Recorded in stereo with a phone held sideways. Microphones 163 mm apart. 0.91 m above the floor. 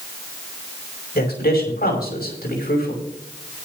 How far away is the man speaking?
About 6 m.